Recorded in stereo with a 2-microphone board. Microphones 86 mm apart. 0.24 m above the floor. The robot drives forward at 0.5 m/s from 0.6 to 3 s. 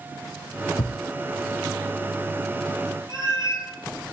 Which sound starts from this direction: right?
A cat meowing, at 3.1 s.